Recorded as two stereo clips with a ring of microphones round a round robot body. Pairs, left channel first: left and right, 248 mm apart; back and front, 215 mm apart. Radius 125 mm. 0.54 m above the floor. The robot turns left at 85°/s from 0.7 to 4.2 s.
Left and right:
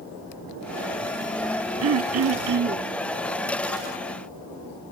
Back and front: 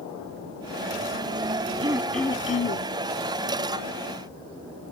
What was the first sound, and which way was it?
Throat clearing, 65° right.